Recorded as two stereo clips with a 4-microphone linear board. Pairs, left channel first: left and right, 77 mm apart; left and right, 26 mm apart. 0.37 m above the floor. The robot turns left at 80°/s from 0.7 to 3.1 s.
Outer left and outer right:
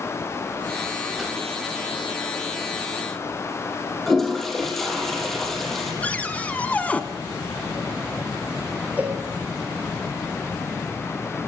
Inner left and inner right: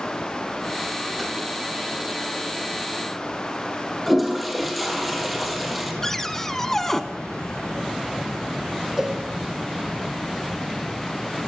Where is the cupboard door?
15° left (ahead or behind), 1.4 m.